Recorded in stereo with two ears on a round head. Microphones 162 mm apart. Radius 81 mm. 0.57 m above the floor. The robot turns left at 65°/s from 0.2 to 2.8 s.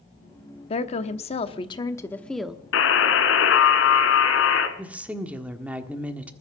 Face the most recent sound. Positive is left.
turn(degrees=-10)  # may be behind; listen again after turning